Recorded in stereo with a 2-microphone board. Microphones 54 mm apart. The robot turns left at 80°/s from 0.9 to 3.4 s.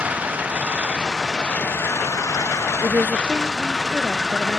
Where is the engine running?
155° right; by 4.6 s 5° left.